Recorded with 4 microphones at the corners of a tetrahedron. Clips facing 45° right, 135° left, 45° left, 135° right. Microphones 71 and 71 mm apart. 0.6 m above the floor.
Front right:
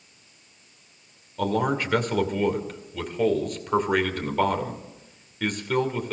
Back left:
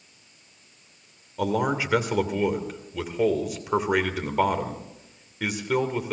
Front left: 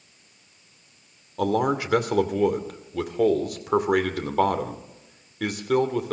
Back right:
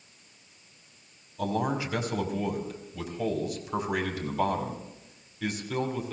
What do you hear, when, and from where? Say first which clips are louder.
1.4 s a man speaking: even, front left 6 dB; 55° left, 2.5 m